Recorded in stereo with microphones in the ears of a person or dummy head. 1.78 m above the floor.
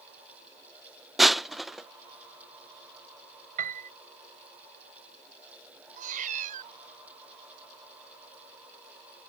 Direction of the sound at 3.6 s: 45° right (ahead or behind).